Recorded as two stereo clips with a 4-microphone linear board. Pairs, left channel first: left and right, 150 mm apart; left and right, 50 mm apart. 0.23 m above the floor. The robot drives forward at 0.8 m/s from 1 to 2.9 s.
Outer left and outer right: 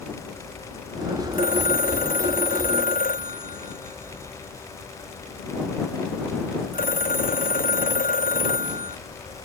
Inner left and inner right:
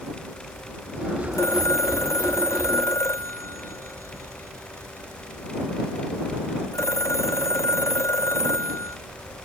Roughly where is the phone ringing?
Left.